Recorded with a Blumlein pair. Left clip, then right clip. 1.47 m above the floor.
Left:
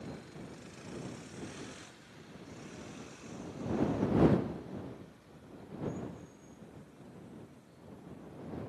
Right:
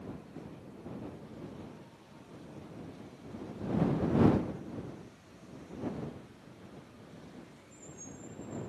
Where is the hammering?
I don't hear hammering.